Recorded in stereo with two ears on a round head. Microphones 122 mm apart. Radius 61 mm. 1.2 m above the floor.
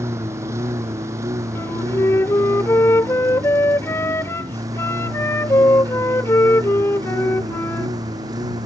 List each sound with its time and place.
0.0 s a lawn mower: 20° right (ahead or behind); by 8.7 s 30° right (ahead or behind)
1.6 s a flute: 20° left (ahead or behind)